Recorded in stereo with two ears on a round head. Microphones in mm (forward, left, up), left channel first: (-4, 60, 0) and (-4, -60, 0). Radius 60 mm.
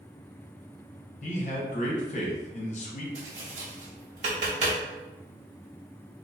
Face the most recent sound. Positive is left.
turn(degrees=-55)  # may be behind; listen again after turning